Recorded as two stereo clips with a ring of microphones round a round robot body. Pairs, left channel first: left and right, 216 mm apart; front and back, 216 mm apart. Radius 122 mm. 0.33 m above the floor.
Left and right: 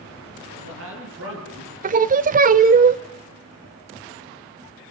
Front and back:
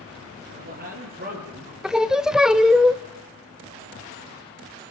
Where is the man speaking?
125° right, 8.5 m.